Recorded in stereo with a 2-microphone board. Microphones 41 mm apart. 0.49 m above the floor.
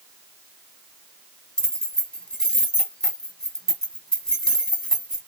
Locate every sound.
1.6 s keys jangling: 10° left (ahead or behind), 1.8 m